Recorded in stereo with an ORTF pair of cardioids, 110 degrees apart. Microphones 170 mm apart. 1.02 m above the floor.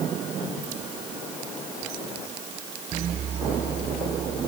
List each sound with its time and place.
Only background noise.